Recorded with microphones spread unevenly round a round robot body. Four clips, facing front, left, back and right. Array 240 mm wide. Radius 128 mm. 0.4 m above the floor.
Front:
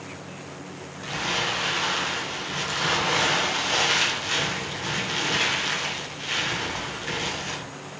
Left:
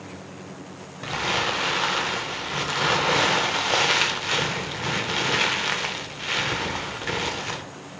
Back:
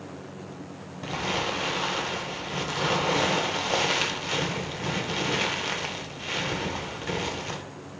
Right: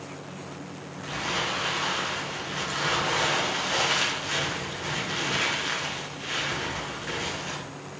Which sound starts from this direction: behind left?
Crumpling, at 1.0 s.